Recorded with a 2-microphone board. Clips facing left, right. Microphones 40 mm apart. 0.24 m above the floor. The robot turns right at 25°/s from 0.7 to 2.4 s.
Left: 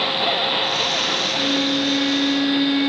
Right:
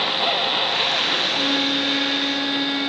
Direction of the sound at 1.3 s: 25° right (ahead or behind).